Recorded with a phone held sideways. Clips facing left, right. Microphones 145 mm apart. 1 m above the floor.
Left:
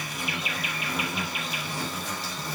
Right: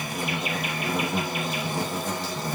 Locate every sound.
0.0 s an insect: 50° right (ahead or behind), 0.9 m